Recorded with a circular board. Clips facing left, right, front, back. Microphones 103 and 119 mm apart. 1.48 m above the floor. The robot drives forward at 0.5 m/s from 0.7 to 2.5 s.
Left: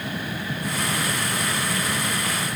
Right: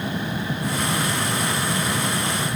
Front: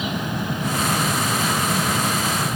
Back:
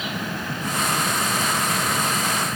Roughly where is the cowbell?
I don't hear a cowbell.